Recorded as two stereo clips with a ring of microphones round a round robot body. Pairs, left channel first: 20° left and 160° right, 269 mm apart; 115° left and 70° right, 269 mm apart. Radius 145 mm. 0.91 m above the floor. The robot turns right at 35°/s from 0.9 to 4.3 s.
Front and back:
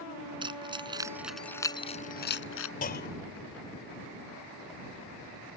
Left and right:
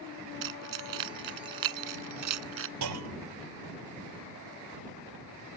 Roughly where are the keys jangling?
Right.